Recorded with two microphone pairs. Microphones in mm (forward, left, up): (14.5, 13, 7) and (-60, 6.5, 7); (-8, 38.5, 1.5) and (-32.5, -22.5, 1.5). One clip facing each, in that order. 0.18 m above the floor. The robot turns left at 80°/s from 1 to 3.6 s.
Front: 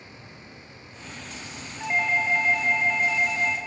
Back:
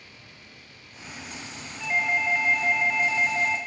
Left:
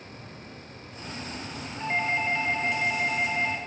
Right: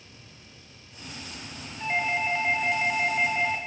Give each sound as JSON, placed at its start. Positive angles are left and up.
{"t": 1.8, "sound": "a doorbell", "azimuth_deg": -20, "distance_m": 1.7}